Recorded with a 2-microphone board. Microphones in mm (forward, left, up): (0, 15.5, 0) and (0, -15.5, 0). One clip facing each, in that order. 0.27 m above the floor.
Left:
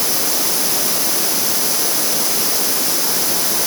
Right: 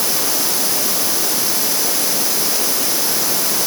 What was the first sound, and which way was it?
Only background noise.